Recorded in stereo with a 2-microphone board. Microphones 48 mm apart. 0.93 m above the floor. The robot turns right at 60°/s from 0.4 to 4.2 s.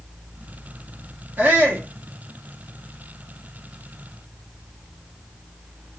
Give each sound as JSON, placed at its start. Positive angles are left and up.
{"t": 1.4, "sound": "a shout", "azimuth_deg": -100, "distance_m": 1.1}